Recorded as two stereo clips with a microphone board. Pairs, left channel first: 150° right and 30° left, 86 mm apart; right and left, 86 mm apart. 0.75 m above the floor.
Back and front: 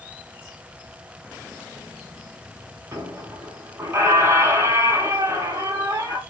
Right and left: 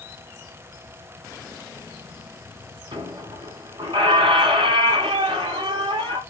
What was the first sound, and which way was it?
A squeak, 85° left.